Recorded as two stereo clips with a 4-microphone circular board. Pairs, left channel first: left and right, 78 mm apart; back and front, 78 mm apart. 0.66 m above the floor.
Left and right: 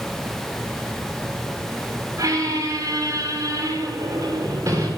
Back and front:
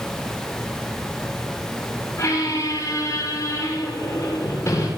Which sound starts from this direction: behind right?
A squeak, at 2.2 s.